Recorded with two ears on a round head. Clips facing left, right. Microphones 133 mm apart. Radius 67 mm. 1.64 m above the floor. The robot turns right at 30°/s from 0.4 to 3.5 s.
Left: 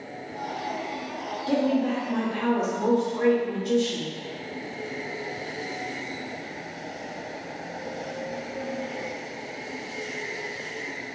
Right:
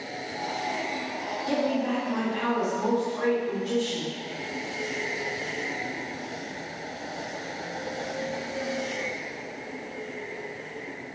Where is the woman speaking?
5° right, 1.2 m; by 4.1 s 55° left, 1.2 m.